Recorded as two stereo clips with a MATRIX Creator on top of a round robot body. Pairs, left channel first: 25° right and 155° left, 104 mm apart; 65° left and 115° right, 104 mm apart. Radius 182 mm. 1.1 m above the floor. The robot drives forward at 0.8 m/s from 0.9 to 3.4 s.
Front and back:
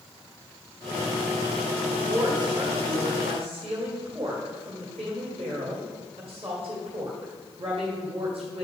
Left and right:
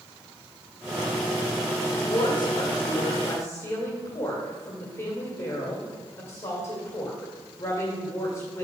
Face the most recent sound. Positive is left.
turn(degrees=135)